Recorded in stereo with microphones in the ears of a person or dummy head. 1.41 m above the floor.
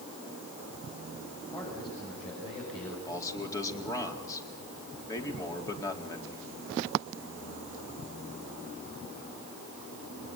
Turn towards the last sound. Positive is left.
turn(degrees=20)  # may be behind; listen again after turning